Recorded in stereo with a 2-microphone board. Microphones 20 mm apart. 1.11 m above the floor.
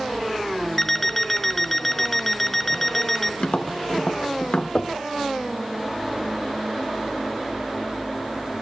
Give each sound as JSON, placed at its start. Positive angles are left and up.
{"t": 0.8, "sound": "an alarm clock", "side_deg": 20, "distance_m": 1.0}
{"t": 3.4, "sound": "tapping", "side_deg": 60, "distance_m": 1.1}
{"t": 4.8, "sound": "knocking", "side_deg": 60, "distance_m": 1.4}